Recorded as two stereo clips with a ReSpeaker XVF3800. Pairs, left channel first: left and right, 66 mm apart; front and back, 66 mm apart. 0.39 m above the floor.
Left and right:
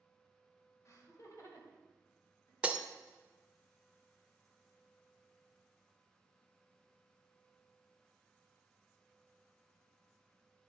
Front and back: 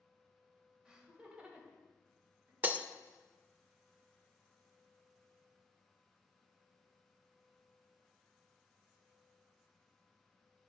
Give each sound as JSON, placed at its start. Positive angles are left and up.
{"t": 0.8, "sound": "laughter", "azimuth_deg": 105, "distance_m": 1.7}
{"t": 2.6, "sound": "breaking glass", "azimuth_deg": -145, "distance_m": 0.6}